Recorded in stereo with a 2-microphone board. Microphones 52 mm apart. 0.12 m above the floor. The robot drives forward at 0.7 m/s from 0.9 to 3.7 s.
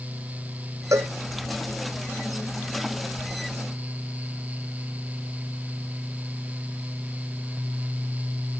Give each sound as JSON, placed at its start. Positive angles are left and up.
{"t": 0.9, "sound": "a cowbell", "side_deg": -75}